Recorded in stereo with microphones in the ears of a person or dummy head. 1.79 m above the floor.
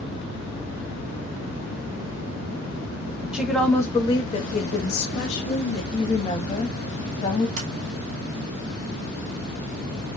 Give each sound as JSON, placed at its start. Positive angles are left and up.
{"t": 3.3, "sound": "a woman speaking", "side_deg": 0, "distance_m": 1.1}
{"t": 5.9, "sound": "a woman speaking", "side_deg": 25, "distance_m": 1.6}
{"t": 7.6, "sound": "a sliding door", "side_deg": -45, "distance_m": 2.0}